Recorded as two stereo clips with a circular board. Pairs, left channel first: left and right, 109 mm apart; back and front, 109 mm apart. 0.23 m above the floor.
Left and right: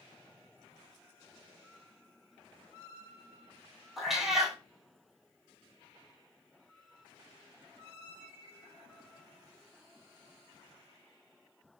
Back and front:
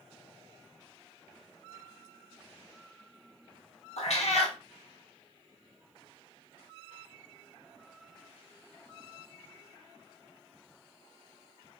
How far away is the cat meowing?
About 0.7 m.